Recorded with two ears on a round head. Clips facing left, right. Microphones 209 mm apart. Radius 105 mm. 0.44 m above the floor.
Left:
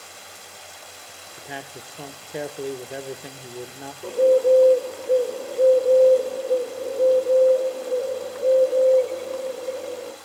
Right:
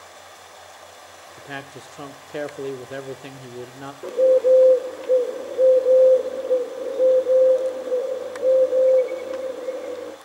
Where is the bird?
20° right (ahead or behind), 1.1 m.